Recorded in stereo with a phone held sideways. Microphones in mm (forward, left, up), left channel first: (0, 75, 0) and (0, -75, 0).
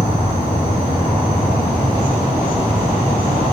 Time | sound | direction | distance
0.0 | an insect | 50° right (ahead or behind) | 3.5 m